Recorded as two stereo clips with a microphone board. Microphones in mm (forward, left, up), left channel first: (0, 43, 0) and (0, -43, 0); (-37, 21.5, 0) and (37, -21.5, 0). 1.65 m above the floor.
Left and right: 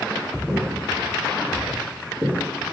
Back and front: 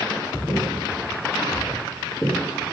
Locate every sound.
0.5 s footsteps: 175° left, 2.0 m; by 2.7 s 130° right, 2 m